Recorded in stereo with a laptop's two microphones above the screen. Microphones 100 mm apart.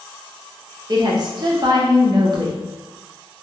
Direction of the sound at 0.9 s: 45° right (ahead or behind).